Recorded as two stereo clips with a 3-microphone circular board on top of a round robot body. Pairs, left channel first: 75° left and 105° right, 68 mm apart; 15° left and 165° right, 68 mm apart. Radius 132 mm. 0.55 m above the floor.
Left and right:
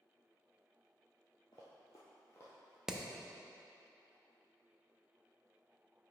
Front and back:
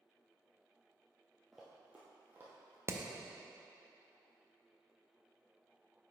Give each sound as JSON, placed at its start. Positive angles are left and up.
{"t": 1.5, "sound": "running footsteps", "azimuth_deg": 105, "distance_m": 0.6}
{"t": 2.9, "sound": "hammering", "azimuth_deg": 175, "distance_m": 0.8}